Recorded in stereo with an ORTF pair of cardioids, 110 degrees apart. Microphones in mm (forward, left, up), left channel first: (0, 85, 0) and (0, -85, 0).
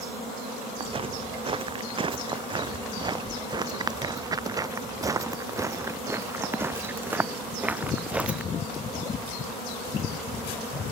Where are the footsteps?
35° right; by 8.4 s 5° right.